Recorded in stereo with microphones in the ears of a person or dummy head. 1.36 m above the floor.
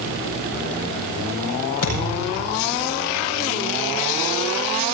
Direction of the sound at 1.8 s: 75° left (ahead or behind).